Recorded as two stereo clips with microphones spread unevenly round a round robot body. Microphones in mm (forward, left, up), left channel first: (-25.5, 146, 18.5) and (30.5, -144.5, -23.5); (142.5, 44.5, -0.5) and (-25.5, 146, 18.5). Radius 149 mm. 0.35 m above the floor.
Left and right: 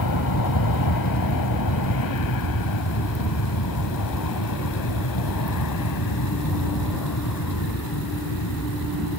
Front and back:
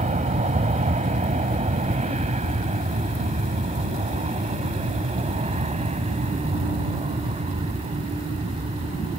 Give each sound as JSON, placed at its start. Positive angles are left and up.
{"t": 0.0, "sound": "an aircraft", "azimuth_deg": 105}